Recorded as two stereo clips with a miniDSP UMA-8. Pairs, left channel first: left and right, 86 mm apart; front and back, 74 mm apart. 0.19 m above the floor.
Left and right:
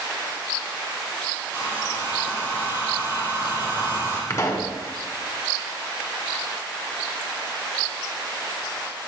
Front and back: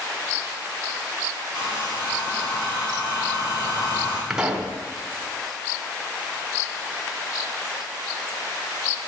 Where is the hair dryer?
25° right, 4.5 m.